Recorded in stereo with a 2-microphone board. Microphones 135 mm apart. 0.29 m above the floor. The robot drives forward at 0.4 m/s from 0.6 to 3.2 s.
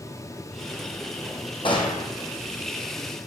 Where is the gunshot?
40° left (ahead or behind), 2.0 m; by 2.1 s 35° left (ahead or behind), 2 m.